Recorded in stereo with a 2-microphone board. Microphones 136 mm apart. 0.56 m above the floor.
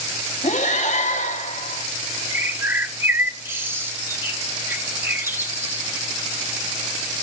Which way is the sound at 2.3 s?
15° right (ahead or behind).